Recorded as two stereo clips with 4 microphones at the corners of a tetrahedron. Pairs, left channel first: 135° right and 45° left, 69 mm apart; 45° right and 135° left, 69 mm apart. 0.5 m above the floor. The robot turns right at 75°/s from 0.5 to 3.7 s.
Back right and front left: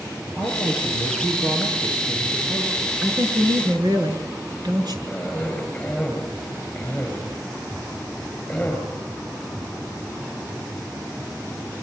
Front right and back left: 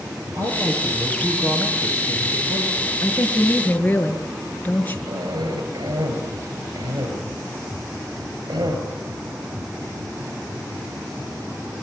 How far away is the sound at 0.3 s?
About 9.5 m.